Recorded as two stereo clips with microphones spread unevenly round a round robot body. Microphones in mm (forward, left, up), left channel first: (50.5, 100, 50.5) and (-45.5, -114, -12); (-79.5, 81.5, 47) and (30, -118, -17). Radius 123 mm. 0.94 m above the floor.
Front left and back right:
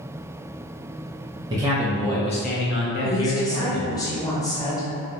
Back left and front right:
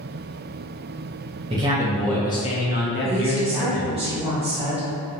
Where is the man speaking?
80° right, 0.6 m; by 4.0 s 85° left, 1.1 m.